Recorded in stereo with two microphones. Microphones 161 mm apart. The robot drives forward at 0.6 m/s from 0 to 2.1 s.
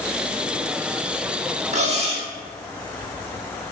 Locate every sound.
1.7 s cutlery clinking: 45° right (ahead or behind), 0.6 m; by 2.3 s 40° right (ahead or behind), 0.7 m